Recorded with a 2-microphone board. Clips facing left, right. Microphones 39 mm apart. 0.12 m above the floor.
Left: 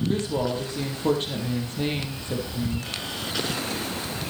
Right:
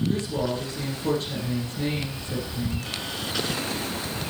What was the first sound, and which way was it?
A woman speaking, 40° left (ahead or behind).